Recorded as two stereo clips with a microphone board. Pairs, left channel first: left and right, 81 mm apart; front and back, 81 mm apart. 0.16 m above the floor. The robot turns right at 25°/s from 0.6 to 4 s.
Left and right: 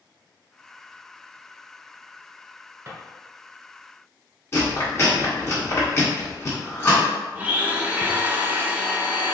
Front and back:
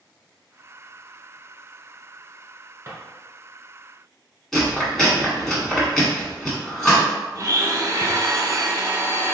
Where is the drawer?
130° right, 1.3 m.